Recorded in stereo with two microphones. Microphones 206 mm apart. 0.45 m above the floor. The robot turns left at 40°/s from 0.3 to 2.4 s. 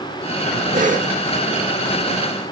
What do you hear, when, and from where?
0.7 s a cough: 40° right (ahead or behind), 1.0 m; by 1.1 s 35° right (ahead or behind), 1.0 m